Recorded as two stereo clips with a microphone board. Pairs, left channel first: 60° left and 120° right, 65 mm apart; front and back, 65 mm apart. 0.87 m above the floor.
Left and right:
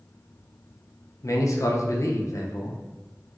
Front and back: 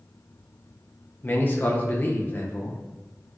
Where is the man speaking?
50° left, 0.5 m.